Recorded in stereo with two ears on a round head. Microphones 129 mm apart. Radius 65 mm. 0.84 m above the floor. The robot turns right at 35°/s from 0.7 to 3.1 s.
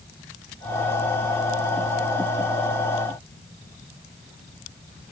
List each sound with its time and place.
Only background noise.